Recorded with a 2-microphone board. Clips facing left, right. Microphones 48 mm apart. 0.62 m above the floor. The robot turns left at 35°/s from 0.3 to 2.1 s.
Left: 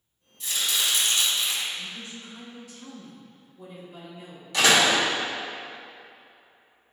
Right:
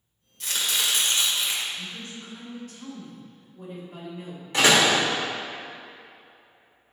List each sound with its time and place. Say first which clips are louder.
0.4 s chopping: even; 115° right, 1.4 m; by 1.6 s 160° right, 1.4 m
1.7 s a woman speaking: even; 40° right (ahead or behind), 1.6 m; by 4.4 s 45° right (ahead or behind), 1.6 m
4.5 s a door slam: right 1 dB; 30° right (ahead or behind), 1.6 m